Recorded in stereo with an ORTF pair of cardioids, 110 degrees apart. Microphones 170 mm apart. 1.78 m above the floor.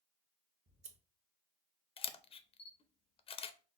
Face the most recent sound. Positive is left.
turn(degrees=35)